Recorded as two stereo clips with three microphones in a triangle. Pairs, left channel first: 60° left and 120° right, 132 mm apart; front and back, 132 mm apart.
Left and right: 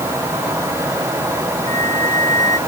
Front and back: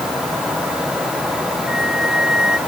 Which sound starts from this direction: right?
A flute, at 1.7 s.